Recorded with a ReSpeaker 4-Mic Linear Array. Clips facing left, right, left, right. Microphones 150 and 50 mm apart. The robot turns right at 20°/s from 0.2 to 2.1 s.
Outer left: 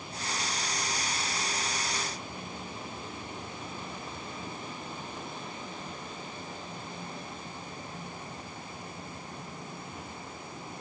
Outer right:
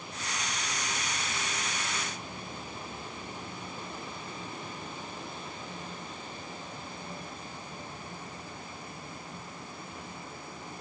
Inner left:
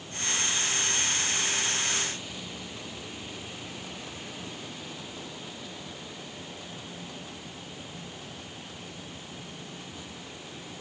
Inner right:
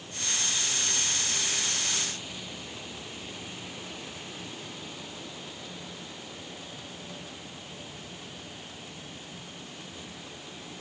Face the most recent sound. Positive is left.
No sound to turn to.